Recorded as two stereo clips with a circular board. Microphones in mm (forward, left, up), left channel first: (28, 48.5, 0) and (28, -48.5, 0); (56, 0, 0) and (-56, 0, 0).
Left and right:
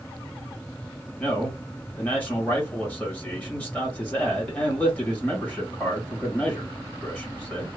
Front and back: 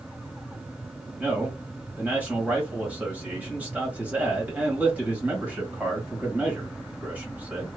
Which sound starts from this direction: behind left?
A man speaking, at 1.2 s.